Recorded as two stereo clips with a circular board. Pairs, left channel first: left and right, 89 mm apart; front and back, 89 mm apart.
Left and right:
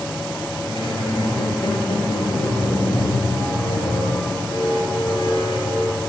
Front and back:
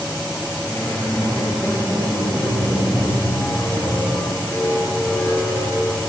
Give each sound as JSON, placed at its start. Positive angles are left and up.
{"t": 0.7, "sound": "a squeak", "azimuth_deg": 60, "distance_m": 6.0}